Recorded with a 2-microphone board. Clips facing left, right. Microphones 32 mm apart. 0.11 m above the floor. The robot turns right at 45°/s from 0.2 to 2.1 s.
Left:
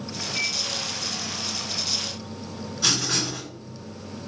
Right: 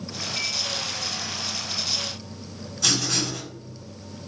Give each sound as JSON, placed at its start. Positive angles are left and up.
{"t": 0.3, "sound": "a microwave", "side_deg": 35, "distance_m": 1.9}
{"t": 2.8, "sound": "writing", "side_deg": 20, "distance_m": 1.8}